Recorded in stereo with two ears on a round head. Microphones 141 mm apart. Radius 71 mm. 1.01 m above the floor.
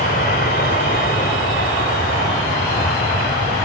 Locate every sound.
0.0 s an aircraft: 55° left (ahead or behind)